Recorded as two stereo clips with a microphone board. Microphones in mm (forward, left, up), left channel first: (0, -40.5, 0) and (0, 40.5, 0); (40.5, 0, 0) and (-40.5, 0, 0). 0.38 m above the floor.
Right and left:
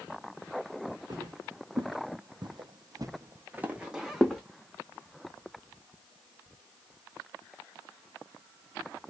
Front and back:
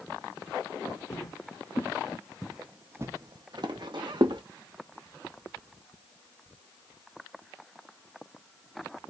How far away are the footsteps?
About 1.6 m.